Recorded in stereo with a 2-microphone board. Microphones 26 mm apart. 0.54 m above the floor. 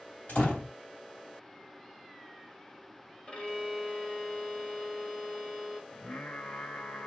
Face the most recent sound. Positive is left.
turn(degrees=75)  # may be behind; listen again after turning